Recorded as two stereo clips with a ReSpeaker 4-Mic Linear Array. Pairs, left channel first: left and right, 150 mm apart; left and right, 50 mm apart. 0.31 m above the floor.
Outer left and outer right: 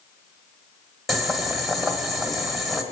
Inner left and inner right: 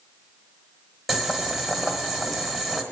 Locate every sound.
1.1 s boiling: centre (ahead or behind), 1.3 m